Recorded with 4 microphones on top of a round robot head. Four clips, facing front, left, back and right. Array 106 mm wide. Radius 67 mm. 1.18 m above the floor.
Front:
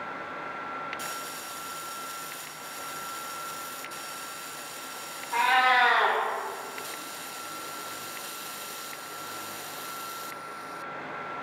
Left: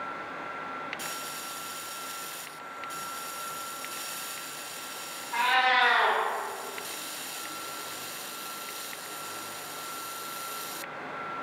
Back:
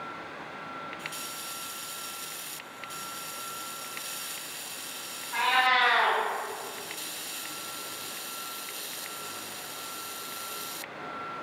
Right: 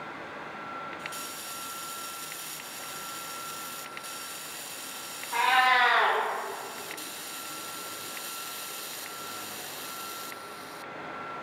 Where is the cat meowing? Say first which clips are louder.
Right 1 dB, front 3 dB; 25° right, 0.7 m.